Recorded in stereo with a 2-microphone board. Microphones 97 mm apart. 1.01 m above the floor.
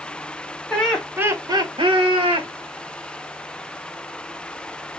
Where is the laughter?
15° left (ahead or behind), 0.8 m; by 2.5 s 70° right (ahead or behind), 1.5 m.